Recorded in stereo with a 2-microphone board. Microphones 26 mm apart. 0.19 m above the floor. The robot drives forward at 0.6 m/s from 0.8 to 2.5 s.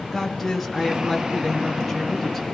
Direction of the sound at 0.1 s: 5° left (ahead or behind).